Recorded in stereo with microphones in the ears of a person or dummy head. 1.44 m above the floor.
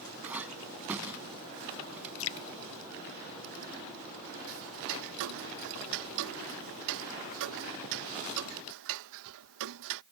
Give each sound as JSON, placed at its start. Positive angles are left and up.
{"t": 0.2, "sound": "a clink", "side_deg": 0}
{"t": 2.2, "sound": "dripping", "side_deg": 65}
{"t": 4.5, "sound": "ticking", "side_deg": -75}